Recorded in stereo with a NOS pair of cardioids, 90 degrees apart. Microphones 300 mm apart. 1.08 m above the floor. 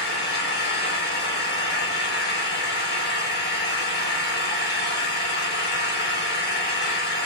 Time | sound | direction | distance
0.0 | an engine running | 35° left | 5 m